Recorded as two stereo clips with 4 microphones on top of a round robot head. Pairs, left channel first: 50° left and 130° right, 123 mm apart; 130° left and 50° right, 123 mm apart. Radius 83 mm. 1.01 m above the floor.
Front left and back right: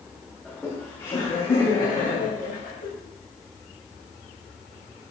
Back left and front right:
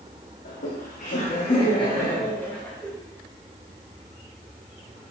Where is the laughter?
140° left, 1.8 m; by 2.9 s 45° left, 2.5 m.